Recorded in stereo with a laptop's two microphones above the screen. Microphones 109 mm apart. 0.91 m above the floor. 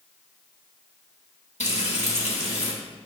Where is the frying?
75° left (ahead or behind), 1.5 m.